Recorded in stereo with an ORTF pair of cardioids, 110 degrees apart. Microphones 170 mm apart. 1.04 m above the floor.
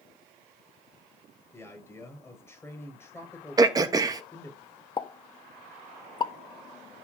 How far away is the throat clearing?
About 1.1 m.